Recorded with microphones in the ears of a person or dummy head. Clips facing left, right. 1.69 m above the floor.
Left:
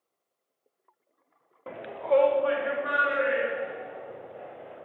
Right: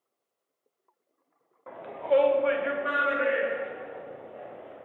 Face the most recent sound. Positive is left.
turn(degrees=-50)  # may be behind; listen again after turning